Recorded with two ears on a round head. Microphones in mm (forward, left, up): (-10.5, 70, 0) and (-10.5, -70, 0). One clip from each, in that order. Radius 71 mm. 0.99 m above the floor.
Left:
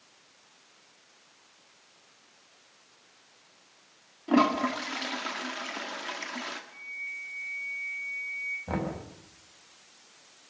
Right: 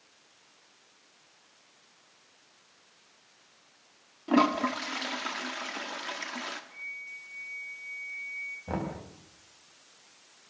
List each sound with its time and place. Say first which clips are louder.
4.3 s a toilet flushing: left 1 dB; 10° right (ahead or behind), 2.0 m
6.7 s a flute: left 2 dB; 45° right (ahead or behind), 9 m
8.7 s knocking: left 2 dB; 5° left (ahead or behind), 5.5 m